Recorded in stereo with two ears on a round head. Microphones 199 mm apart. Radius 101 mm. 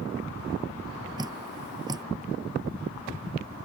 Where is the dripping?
20° right (ahead or behind).